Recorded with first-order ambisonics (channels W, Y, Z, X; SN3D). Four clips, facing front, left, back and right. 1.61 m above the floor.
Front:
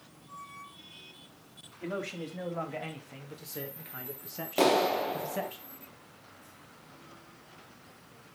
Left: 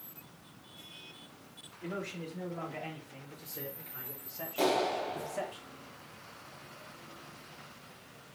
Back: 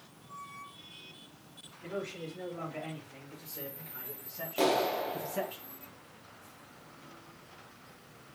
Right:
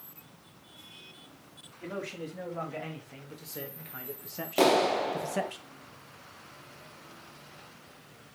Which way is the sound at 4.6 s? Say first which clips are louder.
Right 6 dB, front 3 dB; 60° right.